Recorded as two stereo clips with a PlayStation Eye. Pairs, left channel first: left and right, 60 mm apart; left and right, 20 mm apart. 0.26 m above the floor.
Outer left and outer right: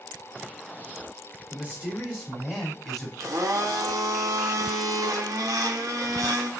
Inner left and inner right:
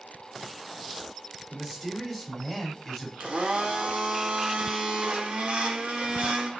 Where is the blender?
70° right (ahead or behind), 0.6 m.